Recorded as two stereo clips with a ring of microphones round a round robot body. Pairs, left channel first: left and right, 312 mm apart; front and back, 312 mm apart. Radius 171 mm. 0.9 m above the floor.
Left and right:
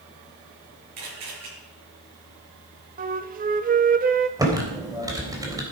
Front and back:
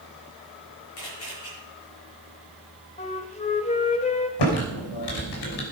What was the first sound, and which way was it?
A camera shutter, 55° right.